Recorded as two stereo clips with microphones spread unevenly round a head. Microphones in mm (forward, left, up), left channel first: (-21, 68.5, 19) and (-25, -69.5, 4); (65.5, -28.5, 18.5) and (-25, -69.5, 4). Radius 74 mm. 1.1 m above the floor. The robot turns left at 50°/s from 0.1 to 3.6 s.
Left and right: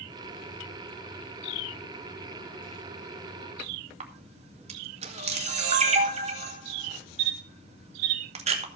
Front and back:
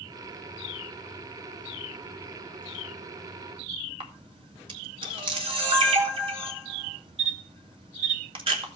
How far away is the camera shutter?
About 2.5 m.